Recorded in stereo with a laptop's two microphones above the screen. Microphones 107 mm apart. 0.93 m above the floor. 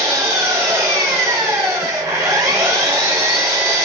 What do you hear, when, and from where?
0.0 s an engine running: 30° right (ahead or behind), 1.5 m